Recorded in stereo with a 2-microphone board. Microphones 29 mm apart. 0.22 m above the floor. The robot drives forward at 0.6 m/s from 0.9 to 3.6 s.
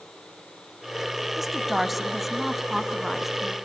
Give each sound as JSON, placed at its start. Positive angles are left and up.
{"t": 1.4, "sound": "a woman speaking", "side_deg": -5, "distance_m": 1.0}